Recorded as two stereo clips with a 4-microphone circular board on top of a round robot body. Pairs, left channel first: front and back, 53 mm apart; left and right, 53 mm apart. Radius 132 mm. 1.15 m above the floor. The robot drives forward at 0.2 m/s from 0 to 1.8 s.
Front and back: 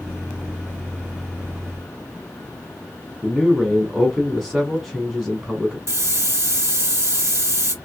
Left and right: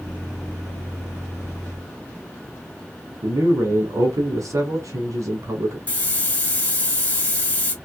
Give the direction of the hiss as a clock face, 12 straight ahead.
7 o'clock.